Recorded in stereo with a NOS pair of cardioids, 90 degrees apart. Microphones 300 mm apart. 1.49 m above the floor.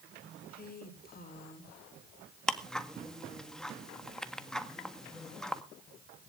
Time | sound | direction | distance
0.5 | a woman speaking | 30° left | 4.5 m
2.5 | ticking | straight ahead | 1.8 m